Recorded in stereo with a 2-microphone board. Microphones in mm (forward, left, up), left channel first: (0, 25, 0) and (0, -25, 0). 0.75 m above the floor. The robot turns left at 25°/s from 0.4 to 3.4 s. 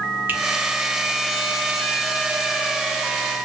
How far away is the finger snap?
About 0.9 m.